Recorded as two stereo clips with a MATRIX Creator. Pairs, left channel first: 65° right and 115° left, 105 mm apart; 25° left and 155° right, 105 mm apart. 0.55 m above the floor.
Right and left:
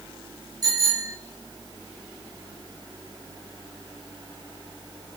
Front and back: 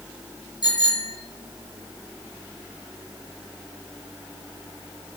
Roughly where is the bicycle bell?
Ahead left.